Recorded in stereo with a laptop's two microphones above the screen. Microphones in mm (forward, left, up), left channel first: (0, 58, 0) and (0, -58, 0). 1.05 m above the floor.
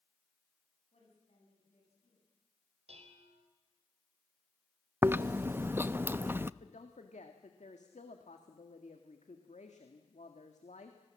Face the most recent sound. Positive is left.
turn(degrees=85)